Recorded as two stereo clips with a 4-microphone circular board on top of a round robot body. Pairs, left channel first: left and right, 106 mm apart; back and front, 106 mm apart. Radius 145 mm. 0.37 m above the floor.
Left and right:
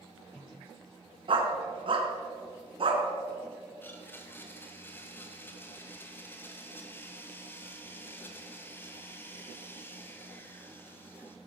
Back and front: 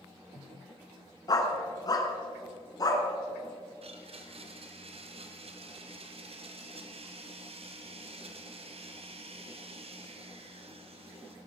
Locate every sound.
1.3 s a dog barking: 125° right, 2.0 m
3.8 s a blender: 20° left, 1.9 m